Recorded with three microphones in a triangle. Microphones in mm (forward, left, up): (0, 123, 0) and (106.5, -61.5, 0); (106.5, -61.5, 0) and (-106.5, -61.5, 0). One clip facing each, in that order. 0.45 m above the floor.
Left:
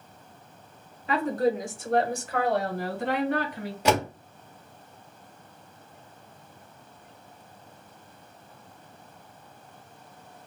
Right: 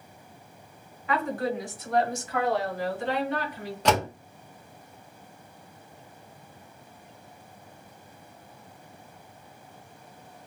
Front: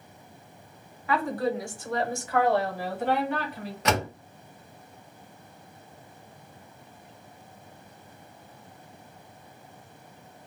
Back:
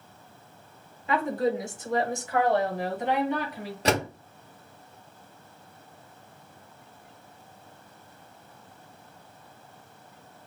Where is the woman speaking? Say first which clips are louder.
Left 4 dB, back 1 dB; 140° left, 0.8 m; by 3.8 s 105° left, 1.8 m.